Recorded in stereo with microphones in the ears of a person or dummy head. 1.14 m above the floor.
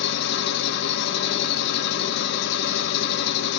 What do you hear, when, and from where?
0.0 s an engine running: 60° left (ahead or behind), 1.2 m